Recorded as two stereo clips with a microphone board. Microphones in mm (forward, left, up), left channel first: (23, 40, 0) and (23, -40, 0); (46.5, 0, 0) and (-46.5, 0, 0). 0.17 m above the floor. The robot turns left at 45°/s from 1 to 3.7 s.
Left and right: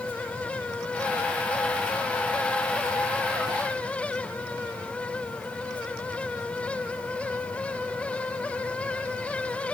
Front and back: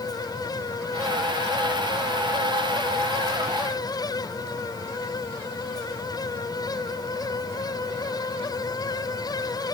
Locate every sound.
Only background noise.